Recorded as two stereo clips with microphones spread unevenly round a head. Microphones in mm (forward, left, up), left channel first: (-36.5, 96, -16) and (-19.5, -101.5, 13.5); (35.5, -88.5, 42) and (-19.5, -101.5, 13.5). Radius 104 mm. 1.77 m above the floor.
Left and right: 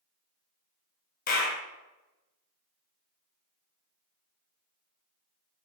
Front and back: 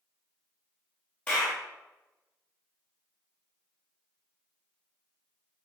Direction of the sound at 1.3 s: 50° left.